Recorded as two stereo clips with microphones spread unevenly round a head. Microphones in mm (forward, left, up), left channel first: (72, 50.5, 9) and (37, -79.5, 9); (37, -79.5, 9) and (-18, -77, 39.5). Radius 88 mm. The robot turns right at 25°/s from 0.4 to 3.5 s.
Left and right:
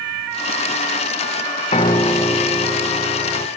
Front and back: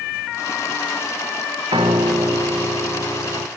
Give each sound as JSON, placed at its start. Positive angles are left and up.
{"t": 1.7, "sound": "a piano", "azimuth_deg": 135, "distance_m": 0.8}